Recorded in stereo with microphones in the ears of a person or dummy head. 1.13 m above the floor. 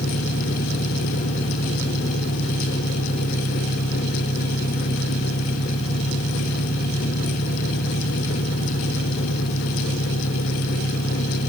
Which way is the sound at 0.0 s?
30° left (ahead or behind).